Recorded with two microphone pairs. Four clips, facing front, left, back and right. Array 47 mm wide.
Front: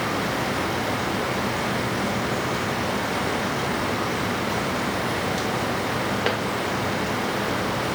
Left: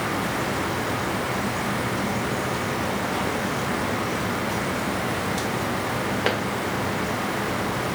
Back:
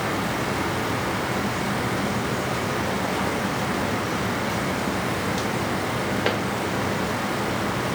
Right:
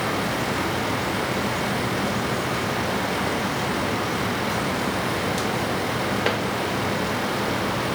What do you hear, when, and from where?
Only background noise.